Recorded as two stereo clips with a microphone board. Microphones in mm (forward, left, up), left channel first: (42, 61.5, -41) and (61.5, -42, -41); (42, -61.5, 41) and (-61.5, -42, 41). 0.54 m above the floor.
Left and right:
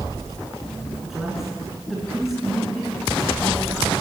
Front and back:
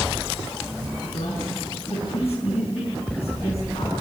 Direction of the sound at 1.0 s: 10° left.